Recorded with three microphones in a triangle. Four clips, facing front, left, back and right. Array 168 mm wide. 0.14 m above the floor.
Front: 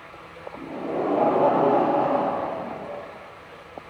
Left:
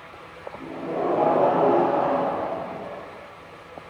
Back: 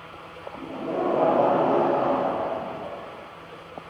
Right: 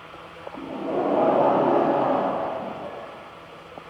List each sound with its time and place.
0.6 s laughter: 80° right, 4 m